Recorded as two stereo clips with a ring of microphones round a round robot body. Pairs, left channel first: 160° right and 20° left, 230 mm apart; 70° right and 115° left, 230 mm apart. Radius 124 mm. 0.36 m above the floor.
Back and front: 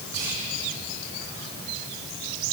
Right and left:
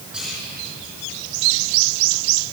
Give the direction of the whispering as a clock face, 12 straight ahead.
11 o'clock.